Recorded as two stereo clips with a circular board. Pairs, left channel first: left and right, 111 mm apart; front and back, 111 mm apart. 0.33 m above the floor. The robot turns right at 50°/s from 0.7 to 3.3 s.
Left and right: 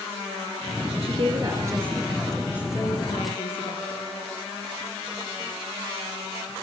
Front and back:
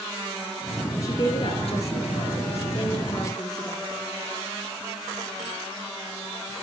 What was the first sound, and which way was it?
A woman speaking, 60° right.